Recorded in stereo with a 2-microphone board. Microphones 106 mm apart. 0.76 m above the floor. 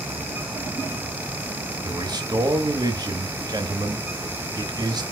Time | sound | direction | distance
1.9 | a man speaking | 40° right (ahead or behind) | 1.1 m